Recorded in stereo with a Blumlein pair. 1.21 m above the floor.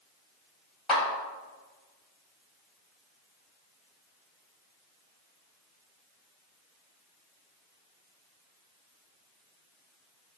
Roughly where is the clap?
Ahead.